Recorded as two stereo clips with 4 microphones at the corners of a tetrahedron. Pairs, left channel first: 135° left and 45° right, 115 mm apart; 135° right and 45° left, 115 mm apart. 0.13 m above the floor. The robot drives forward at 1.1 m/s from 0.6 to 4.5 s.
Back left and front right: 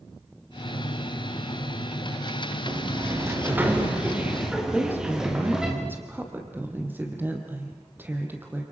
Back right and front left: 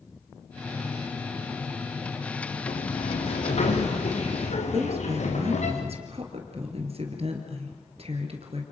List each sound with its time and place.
2.7 s a sliding door: 105° right, 4 m; by 5.7 s 130° right, 4.5 m
4.7 s a woman speaking: 25° left, 4 m